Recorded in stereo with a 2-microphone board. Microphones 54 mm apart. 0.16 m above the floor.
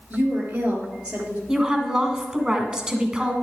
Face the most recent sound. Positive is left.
turn(degrees=-10)  # may be behind; listen again after turning